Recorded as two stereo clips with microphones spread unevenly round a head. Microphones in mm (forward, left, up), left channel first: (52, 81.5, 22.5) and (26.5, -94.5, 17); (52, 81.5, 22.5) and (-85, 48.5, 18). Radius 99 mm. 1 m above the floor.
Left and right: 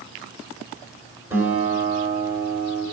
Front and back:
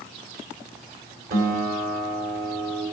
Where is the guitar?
Straight behind, 3.5 m.